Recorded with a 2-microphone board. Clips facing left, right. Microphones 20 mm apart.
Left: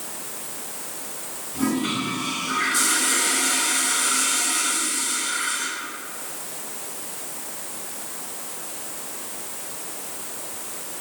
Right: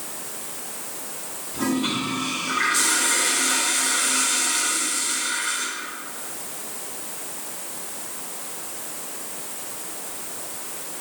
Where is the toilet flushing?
30° right (ahead or behind), 3 m.